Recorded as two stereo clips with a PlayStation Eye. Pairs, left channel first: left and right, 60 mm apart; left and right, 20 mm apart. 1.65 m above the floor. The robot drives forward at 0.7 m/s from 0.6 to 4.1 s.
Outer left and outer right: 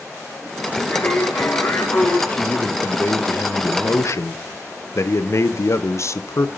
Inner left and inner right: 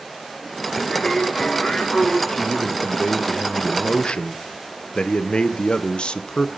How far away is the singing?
About 5 m.